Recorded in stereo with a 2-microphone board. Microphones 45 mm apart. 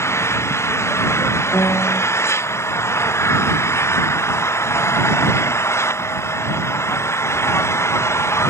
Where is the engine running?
85° left.